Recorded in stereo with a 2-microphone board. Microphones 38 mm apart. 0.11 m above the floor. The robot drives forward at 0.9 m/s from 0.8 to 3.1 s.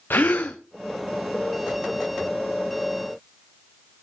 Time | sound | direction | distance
0.1 | a gasp | 60° left (ahead or behind) | 1.8 m